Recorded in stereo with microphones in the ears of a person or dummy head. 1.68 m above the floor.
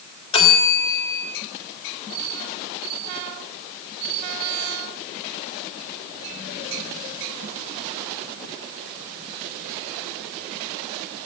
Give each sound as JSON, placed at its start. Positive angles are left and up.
{"t": 0.3, "sound": "a bell", "side_deg": 30, "distance_m": 3.0}